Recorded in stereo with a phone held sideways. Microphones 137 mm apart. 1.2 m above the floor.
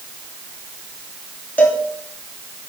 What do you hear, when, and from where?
1.6 s a cowbell: 10° left (ahead or behind), 3 m